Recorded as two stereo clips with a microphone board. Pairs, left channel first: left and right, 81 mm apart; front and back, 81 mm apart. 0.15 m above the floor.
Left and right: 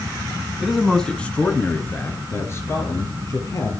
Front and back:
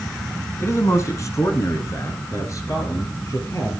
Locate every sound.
0.6 s a man speaking: 5° right, 1.6 m; by 3.7 s 45° left, 4 m